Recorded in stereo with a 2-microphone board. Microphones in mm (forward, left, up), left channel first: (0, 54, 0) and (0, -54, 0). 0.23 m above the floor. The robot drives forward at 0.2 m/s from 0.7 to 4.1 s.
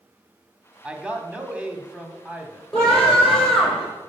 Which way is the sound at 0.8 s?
10° right (ahead or behind).